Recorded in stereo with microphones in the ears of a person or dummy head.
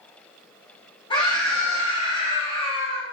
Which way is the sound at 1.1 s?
25° left (ahead or behind).